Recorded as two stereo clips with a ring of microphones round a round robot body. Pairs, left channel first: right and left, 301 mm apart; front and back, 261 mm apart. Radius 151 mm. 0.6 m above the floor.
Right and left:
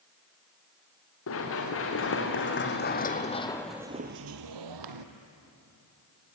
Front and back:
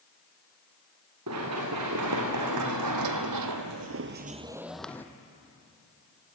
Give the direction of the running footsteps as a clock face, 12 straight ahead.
5 o'clock.